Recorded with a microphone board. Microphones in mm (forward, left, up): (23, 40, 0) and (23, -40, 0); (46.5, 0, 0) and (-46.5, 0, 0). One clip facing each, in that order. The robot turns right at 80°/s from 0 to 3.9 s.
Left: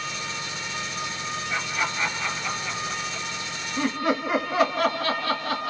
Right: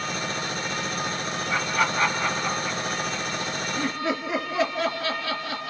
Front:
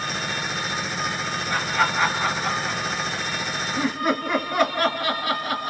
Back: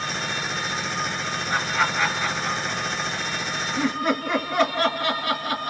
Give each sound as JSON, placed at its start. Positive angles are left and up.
{"t": 1.5, "sound": "laughter", "azimuth_deg": -110, "distance_m": 3.0}